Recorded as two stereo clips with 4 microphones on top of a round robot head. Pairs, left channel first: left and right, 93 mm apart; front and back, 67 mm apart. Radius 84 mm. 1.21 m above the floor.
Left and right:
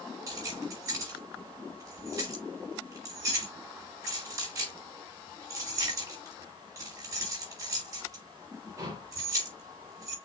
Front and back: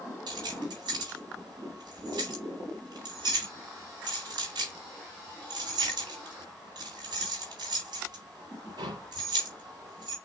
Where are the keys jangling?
150° right, 4 m.